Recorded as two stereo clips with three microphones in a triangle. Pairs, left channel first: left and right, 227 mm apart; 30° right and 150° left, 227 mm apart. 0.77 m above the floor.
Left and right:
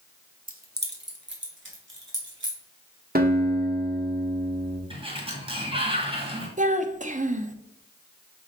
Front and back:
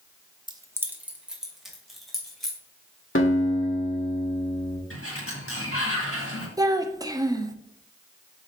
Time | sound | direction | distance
0.5 | keys jangling | 140° right | 0.8 m
3.1 | a guitar | 45° right | 1.5 m
4.9 | a sliding door | 25° right | 1.7 m
6.6 | a child speaking | 135° right | 0.7 m